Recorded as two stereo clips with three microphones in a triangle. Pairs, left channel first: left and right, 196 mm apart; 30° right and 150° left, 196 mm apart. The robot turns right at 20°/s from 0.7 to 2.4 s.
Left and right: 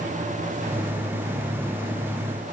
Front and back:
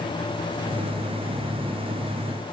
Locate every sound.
Only background noise.